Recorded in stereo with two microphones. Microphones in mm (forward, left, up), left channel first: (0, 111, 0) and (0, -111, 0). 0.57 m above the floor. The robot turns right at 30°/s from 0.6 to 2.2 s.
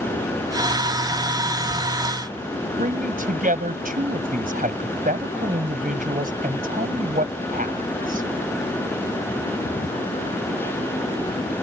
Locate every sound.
2.8 s a man speaking: 40° right (ahead or behind)